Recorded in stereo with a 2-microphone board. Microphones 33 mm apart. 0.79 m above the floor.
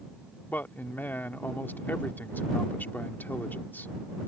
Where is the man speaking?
75° left (ahead or behind).